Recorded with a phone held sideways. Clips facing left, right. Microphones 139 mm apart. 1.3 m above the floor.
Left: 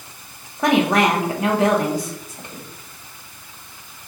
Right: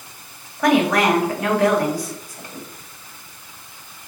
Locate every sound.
0.6 s a woman speaking: 20° left (ahead or behind), 1.1 m